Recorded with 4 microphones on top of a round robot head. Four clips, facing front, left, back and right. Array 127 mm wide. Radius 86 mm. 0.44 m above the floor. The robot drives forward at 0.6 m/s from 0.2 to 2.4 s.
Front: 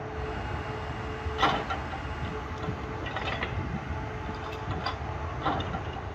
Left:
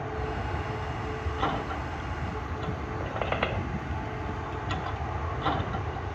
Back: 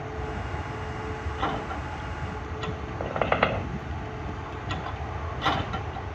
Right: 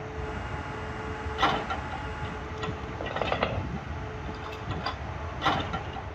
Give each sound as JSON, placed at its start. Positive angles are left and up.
{"t": 0.0, "sound": "an aircraft", "azimuth_deg": 100}
{"t": 3.0, "sound": "a squeak", "azimuth_deg": -165}